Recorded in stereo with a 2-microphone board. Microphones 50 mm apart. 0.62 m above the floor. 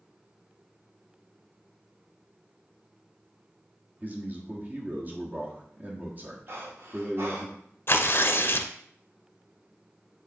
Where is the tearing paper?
50° left (ahead or behind), 0.6 m.